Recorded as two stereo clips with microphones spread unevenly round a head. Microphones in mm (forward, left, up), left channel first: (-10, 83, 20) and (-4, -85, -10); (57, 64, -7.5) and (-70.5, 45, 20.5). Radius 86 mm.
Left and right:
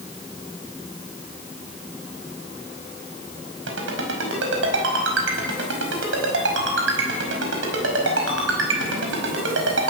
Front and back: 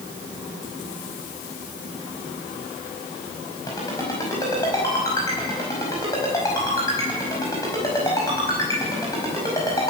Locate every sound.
3.7 s a ringtone: 65° right, 5 m